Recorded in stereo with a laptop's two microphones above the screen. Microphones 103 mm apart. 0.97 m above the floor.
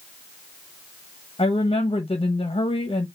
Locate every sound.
1.4 s a woman speaking: 65° left (ahead or behind), 0.9 m